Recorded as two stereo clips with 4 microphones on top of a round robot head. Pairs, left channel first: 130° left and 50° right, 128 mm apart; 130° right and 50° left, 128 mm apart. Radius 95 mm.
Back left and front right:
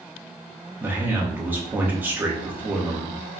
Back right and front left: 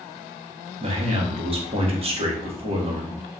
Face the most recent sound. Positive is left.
turn(degrees=20)